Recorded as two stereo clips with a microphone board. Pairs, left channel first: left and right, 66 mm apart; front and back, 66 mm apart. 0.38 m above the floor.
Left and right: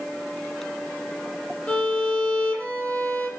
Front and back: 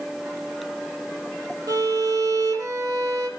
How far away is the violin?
About 5 m.